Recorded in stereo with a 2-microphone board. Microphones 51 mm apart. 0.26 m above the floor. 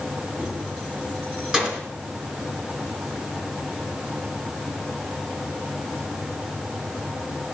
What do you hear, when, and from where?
0.4 s keys jangling: 15° right (ahead or behind), 3 m